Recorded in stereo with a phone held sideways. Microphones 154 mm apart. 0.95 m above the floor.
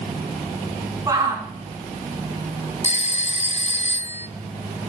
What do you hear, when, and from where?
1.1 s a shout: 20° right (ahead or behind), 3 m
2.8 s a phone ringing: 45° left (ahead or behind), 0.5 m